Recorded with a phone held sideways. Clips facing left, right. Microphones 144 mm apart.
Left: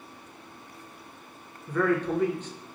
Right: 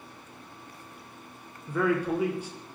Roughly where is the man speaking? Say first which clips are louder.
Left 1 dB; centre.